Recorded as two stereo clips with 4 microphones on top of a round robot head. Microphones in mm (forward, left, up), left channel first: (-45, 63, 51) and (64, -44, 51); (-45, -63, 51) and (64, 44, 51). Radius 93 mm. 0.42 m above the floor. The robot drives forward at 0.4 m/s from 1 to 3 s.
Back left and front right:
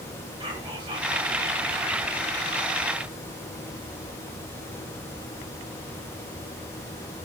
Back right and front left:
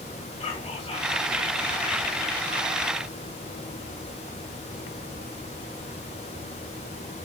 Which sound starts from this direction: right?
Whispering, at 0.4 s.